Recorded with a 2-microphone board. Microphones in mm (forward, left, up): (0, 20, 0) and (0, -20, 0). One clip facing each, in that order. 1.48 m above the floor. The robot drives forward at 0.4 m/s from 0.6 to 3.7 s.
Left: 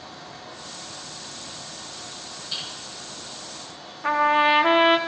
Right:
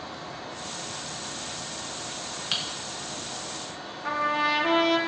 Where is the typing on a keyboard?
65° right (ahead or behind), 1.4 m.